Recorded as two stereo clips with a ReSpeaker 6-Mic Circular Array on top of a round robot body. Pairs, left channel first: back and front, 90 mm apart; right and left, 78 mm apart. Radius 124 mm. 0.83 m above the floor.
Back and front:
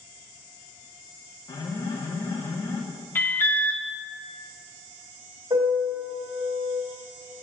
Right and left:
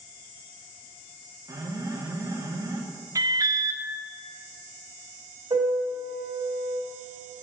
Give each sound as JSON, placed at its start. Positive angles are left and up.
{"t": 1.5, "sound": "an alarm", "azimuth_deg": 135, "distance_m": 1.6}
{"t": 3.1, "sound": "an alarm", "azimuth_deg": 120, "distance_m": 1.3}
{"t": 5.5, "sound": "a piano", "azimuth_deg": 50, "distance_m": 2.0}